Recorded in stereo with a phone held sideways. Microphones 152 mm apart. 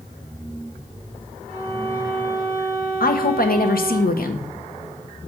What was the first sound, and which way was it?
A violin, 20° left (ahead or behind).